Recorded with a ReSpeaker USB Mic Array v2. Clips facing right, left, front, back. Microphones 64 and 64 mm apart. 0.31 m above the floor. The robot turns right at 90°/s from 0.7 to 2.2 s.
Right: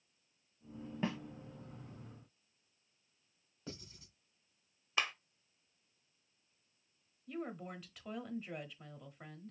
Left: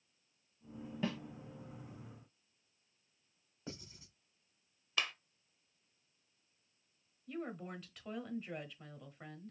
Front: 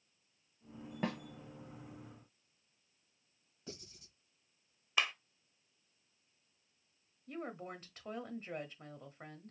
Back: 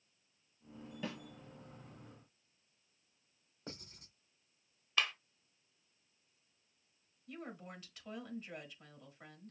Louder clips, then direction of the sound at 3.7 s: Even, even; 155° left.